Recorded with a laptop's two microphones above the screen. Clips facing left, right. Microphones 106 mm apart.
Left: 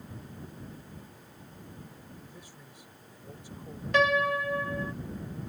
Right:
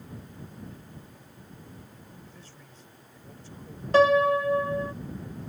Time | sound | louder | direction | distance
2.2 | a man speaking | even | 15° left (ahead or behind) | ?
3.9 | a piano | right 6 dB | 35° right (ahead or behind) | ?